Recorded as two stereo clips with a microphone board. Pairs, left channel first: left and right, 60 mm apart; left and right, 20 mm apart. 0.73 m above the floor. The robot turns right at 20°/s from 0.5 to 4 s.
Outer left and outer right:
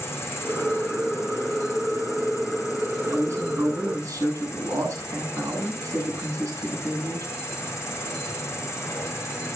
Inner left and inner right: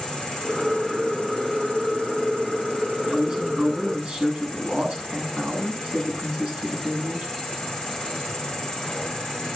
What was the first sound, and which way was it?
An insect, 55° left.